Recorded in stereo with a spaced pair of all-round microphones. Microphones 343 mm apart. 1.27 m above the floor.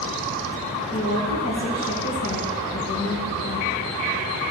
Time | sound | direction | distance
0.9 | a woman speaking | 50° left (ahead or behind) | 1.6 m